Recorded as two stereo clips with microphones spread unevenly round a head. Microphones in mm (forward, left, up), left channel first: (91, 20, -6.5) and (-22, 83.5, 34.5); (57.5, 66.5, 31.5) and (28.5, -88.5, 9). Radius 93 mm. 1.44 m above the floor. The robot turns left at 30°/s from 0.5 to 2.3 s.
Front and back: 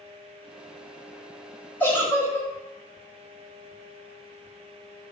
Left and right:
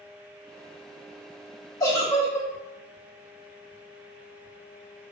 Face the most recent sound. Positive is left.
turn(degrees=50)